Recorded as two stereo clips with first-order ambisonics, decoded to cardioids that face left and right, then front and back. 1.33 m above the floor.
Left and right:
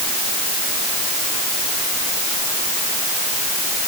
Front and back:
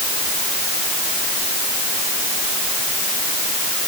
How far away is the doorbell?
I don't hear a doorbell.